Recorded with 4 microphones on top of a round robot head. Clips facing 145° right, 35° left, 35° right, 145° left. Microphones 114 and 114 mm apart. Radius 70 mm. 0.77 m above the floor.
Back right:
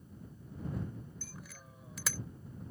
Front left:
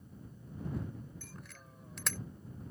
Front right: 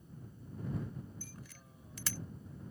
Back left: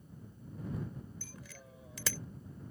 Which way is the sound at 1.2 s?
130° left.